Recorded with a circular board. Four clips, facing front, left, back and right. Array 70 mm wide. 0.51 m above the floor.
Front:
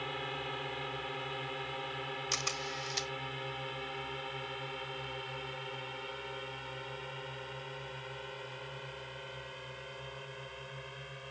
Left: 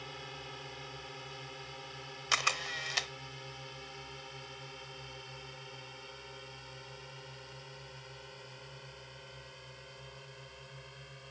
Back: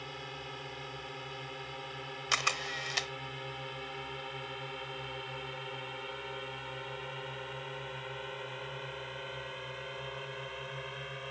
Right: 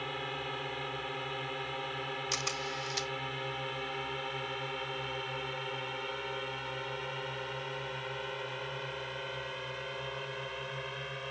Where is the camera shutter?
135° left.